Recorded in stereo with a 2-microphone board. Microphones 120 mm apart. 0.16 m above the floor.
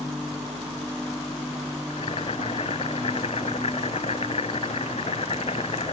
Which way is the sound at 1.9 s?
65° left (ahead or behind).